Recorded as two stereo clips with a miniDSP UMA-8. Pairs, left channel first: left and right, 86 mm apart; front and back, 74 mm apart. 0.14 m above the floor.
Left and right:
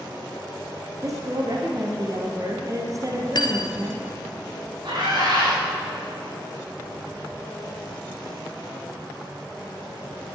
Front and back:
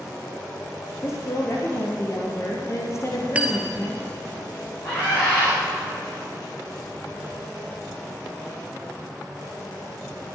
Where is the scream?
55° right, 6.5 m.